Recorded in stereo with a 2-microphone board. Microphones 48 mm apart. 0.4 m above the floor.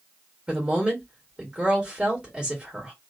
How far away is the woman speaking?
About 1.4 m.